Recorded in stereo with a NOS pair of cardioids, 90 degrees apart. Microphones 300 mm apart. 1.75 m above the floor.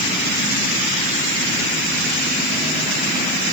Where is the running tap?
No running tap in this recording.